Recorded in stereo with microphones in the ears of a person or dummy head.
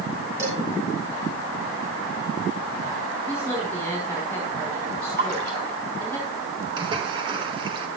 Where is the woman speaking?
10° left (ahead or behind), 4.5 m.